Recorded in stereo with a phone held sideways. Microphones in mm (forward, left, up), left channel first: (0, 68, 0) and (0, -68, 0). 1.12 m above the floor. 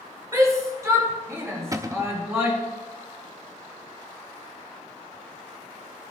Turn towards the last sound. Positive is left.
turn(degrees=-25)  # may be behind; listen again after turning